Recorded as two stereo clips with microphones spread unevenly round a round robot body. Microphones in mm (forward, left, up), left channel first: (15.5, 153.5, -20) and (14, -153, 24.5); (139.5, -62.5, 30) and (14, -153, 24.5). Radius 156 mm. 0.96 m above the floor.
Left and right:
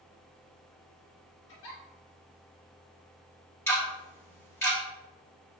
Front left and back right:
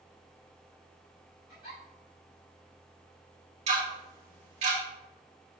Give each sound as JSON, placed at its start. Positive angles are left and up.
{"t": 1.5, "sound": "a giggle", "azimuth_deg": 85, "distance_m": 2.5}
{"t": 3.7, "sound": "ticking", "azimuth_deg": 165, "distance_m": 1.6}